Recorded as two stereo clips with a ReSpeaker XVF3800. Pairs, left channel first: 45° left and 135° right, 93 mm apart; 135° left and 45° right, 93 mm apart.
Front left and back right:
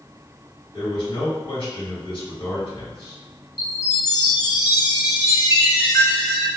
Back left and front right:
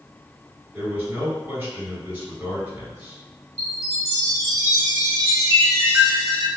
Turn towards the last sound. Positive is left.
turn(degrees=0)